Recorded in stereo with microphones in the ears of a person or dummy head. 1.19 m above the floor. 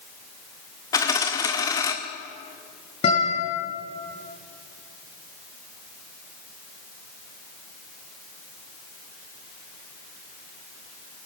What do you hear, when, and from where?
0.9 s a dropped coin: 15° left (ahead or behind), 1.4 m
3.0 s a guitar: 25° left (ahead or behind), 9 m